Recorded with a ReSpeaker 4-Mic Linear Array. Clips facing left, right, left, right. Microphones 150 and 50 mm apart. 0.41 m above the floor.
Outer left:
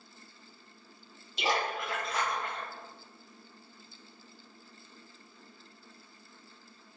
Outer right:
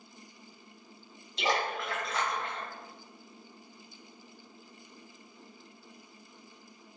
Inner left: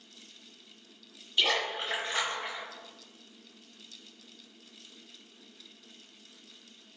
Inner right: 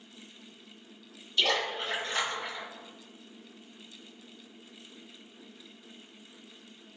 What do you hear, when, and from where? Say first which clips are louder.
1.4 s a splash: outer right 1 dB, even; 10° left (ahead or behind), 1.7 m